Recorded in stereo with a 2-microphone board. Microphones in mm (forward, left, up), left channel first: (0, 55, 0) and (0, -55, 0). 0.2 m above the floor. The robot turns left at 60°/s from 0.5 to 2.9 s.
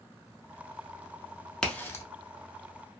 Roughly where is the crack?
Centre.